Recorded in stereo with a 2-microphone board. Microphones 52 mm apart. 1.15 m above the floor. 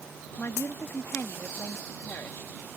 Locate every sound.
0.4 s a woman speaking: 45° left (ahead or behind)